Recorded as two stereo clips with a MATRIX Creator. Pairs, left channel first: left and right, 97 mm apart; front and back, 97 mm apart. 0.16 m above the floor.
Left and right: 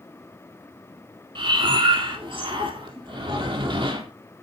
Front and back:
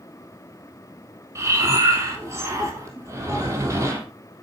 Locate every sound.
1.4 s breathing: 120° right, 3.5 m